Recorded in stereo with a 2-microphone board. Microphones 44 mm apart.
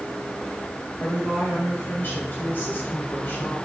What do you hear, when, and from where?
1.0 s a woman speaking: 55° left (ahead or behind), 1.8 m